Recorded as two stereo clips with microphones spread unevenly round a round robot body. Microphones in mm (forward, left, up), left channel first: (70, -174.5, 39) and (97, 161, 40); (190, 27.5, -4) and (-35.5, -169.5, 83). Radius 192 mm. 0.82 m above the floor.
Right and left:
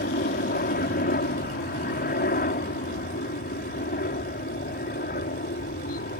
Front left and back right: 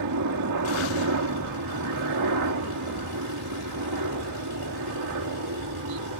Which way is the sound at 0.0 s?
155° right.